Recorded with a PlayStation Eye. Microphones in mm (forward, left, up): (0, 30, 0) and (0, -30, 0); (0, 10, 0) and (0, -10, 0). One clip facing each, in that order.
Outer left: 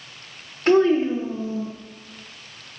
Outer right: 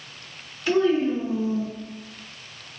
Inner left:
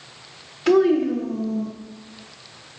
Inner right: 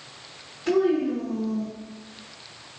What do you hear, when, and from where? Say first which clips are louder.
0.7 s a child speaking: outer left 4 dB, inner left 5 dB; 50° left (ahead or behind), 0.9 m; by 1.7 s 35° right (ahead or behind), 0.8 m